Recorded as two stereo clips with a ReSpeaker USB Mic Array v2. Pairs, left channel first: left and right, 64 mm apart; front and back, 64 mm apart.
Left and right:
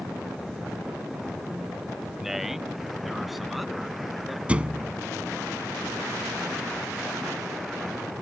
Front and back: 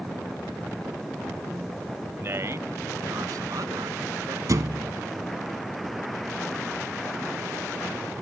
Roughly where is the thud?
Behind.